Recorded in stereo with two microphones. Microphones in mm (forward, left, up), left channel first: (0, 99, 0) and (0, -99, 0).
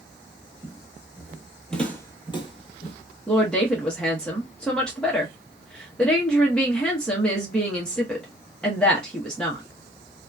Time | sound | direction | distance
0.6 | footsteps | 30° right (ahead or behind) | 1.1 m
3.3 | a woman speaking | 5° left (ahead or behind) | 0.9 m